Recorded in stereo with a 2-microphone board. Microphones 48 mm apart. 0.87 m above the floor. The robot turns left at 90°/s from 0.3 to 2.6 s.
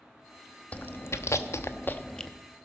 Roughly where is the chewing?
Left.